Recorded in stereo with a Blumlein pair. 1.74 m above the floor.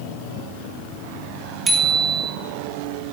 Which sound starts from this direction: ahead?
A bicycle bell, at 1.7 s.